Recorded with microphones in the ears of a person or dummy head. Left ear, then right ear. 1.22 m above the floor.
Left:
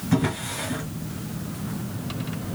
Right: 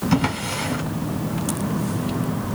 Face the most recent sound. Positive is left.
turn(degrees=-20)  # may be behind; listen again after turning